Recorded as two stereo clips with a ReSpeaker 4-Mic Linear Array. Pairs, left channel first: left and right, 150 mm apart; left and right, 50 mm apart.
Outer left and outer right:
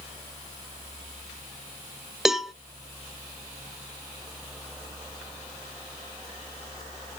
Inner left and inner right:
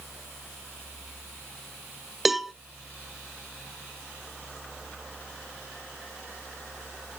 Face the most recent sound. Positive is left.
turn(degrees=-5)  # may be behind; listen again after turning